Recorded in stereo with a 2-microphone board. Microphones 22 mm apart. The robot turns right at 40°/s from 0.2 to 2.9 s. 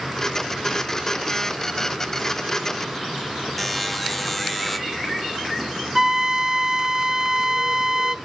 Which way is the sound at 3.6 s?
5° left (ahead or behind).